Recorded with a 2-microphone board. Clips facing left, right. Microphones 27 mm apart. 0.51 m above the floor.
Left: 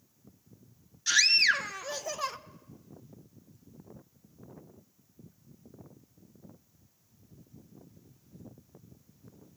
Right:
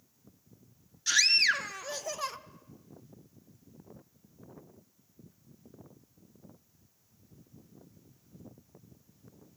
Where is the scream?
5° left (ahead or behind), 0.6 m.